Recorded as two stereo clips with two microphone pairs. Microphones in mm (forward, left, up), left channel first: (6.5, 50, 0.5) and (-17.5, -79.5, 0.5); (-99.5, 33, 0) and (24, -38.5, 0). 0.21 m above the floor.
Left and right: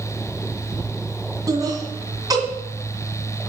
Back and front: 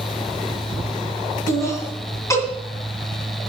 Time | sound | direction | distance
1.5 | laughter | 150° right | 2 m